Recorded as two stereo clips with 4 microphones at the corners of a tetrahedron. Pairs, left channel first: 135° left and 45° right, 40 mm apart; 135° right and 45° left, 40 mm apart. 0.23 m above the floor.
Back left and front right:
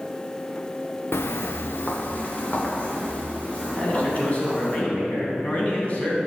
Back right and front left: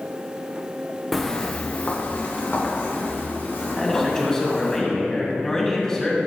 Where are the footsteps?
135° left, 0.8 m; by 4.8 s 165° right, 5 m.